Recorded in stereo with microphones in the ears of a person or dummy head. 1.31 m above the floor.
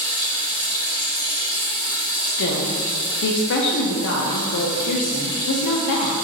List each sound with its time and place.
0.0 s running water: 20° left (ahead or behind), 1.3 m
2.3 s a woman speaking: 60° left (ahead or behind), 0.7 m